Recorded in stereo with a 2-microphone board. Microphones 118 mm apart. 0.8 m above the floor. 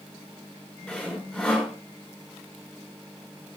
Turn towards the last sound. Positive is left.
turn(degrees=5)  # may be behind; listen again after turning